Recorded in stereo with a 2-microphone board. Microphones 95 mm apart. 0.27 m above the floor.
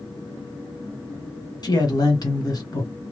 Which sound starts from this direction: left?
A man speaking, at 1.6 s.